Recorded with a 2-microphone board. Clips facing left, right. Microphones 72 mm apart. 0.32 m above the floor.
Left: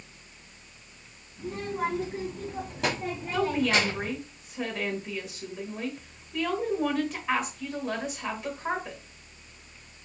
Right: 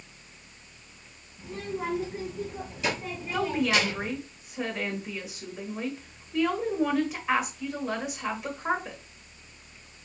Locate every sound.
1.4 s a child speaking: 55° left (ahead or behind), 2 m; by 4.1 s 25° left (ahead or behind), 1.1 m
3.3 s a woman speaking: 5° right (ahead or behind), 1.4 m